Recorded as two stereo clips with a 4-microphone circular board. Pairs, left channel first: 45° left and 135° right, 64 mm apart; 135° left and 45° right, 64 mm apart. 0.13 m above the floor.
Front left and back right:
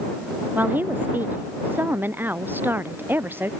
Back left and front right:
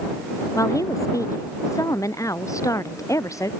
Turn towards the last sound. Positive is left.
turn(degrees=165)